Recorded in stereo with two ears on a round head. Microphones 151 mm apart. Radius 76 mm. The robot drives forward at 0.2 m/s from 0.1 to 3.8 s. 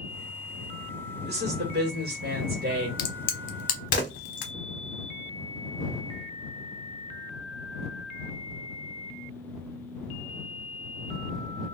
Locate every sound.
1.2 s a woman speaking: 70° right (ahead or behind), 1.3 m; by 2.9 s 65° right (ahead or behind), 1.4 m
3.0 s a crack: 60° left (ahead or behind), 0.8 m; by 4.5 s 50° left (ahead or behind), 0.9 m